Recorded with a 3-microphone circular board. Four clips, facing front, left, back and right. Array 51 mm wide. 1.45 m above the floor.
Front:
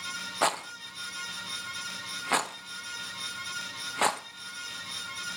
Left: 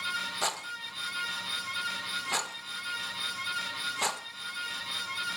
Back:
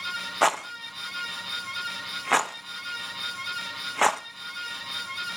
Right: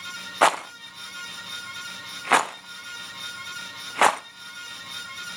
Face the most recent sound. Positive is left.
turn(degrees=-105)